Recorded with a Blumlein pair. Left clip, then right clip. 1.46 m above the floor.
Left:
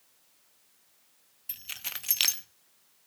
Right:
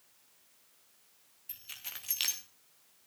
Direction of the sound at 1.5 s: 20° left.